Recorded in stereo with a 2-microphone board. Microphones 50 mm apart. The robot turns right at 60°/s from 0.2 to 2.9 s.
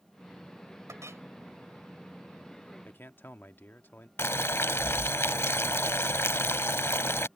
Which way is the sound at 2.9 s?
40° left (ahead or behind).